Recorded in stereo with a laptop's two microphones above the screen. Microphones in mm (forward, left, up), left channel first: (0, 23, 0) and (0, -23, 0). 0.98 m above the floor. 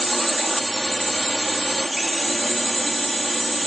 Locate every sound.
0.0 s a drone: centre (ahead or behind)